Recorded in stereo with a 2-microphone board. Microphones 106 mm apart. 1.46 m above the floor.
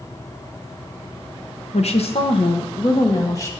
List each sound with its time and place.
1.7 s a woman speaking: 70° left (ahead or behind), 1.0 m; by 3.5 s 25° left (ahead or behind), 1.2 m